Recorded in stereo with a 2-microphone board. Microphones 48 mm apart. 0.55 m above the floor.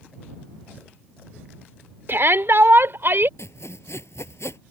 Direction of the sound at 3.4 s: 70° left (ahead or behind).